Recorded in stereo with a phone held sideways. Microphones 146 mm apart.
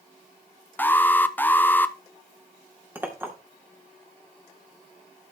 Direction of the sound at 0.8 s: 15° left (ahead or behind).